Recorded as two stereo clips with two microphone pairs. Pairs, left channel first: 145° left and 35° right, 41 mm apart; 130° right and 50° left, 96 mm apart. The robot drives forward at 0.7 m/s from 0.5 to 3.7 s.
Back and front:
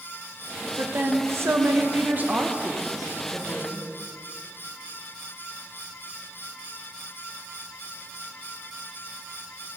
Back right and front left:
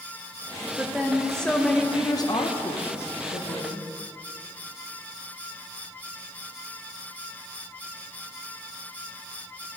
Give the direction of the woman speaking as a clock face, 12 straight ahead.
1 o'clock.